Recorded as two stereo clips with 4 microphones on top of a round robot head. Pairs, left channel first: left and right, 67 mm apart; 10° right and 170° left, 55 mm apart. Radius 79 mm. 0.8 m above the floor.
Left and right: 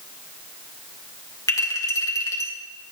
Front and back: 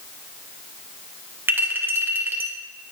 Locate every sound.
1.5 s a clink: 125° left, 2.5 m